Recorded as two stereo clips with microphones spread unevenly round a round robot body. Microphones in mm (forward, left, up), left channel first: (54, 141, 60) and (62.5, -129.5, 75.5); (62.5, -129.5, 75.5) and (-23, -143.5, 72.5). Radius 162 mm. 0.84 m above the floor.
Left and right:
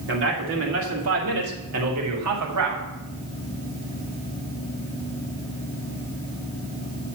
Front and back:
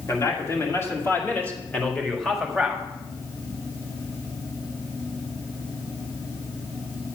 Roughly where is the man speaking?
Ahead right.